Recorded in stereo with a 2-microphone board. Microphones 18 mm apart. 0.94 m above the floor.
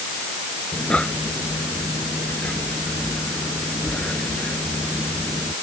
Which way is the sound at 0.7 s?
80° left.